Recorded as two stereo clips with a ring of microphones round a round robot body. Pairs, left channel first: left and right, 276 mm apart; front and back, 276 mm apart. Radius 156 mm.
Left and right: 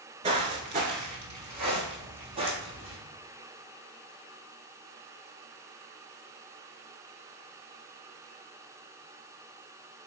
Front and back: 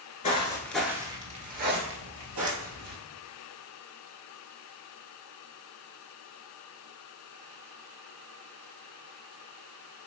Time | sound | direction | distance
0.2 | footsteps | 45° right | 0.8 m